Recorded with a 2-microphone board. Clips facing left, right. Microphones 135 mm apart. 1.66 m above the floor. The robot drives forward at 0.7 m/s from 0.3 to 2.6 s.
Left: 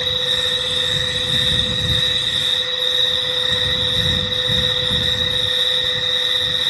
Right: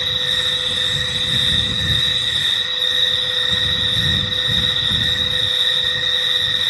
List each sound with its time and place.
0.0 s an insect: 80° right, 2.5 m; by 6.7 s 55° right (ahead or behind), 3 m